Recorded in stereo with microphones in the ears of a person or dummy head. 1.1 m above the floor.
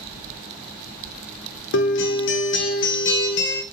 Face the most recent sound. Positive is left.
turn(degrees=60)  # may be behind; listen again after turning